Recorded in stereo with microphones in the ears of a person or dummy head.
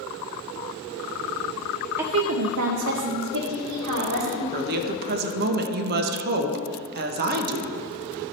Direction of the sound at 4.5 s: 50° right (ahead or behind).